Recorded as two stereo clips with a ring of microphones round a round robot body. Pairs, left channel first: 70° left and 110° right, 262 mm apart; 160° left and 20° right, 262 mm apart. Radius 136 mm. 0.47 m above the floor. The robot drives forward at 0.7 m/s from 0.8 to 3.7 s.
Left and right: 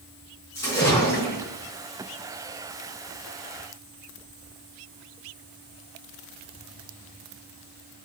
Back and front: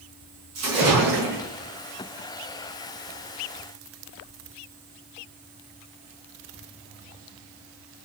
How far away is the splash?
About 4.5 m.